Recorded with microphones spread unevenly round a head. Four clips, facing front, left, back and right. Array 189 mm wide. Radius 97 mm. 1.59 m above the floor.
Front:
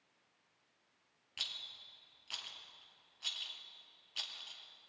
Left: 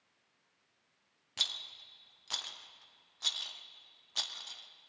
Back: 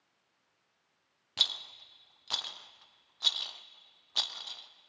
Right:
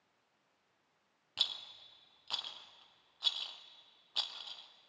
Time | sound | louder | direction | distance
1.4 | a rattle | left 1 dB, back 10 dB | 170° left | 0.6 m